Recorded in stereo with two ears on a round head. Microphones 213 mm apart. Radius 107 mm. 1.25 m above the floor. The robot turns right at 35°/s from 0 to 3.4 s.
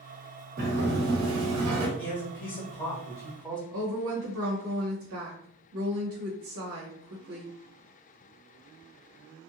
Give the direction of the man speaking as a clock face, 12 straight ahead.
8 o'clock.